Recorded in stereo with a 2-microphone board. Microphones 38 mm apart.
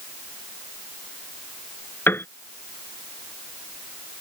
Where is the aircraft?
I don't hear an aircraft.